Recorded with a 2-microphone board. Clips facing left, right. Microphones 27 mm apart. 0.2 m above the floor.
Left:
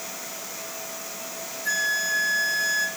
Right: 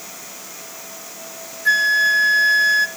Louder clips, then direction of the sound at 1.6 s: Right 10 dB; 45° right (ahead or behind).